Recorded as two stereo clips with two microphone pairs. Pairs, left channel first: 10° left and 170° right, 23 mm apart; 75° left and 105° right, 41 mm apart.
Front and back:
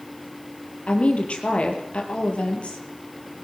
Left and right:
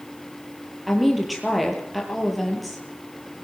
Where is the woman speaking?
15° right, 5.5 m.